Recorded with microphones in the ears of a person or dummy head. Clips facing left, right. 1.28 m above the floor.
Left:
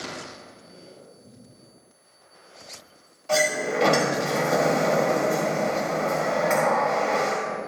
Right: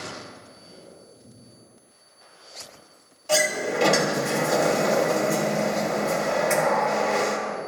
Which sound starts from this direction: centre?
A sliding door, at 3.3 s.